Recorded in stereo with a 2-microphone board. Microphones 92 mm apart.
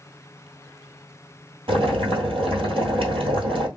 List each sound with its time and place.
1.7 s boiling: 85° right, 1.5 m